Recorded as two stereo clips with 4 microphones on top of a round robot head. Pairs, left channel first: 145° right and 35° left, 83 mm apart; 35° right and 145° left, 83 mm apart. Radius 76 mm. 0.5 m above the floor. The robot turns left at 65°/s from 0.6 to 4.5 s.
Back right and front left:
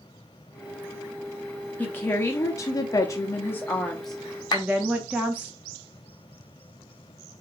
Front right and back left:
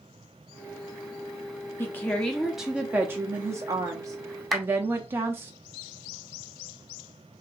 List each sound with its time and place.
1.8 s a woman speaking: 80° right, 0.8 m; by 5.5 s 100° left, 0.8 m
4.5 s a clap: 125° right, 1.0 m